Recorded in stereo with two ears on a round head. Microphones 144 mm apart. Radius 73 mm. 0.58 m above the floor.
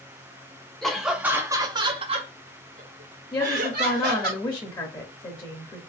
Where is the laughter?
5° left (ahead or behind), 1.0 m; by 4.3 s 70° right (ahead or behind), 2.0 m.